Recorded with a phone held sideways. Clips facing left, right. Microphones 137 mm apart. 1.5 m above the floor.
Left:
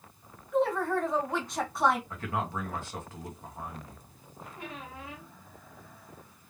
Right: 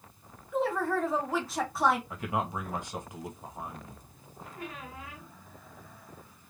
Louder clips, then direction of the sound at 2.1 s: Right 1 dB; 15° right (ahead or behind).